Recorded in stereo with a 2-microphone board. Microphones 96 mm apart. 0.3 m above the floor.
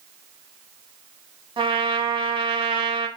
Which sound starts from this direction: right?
A trumpet, at 1.6 s.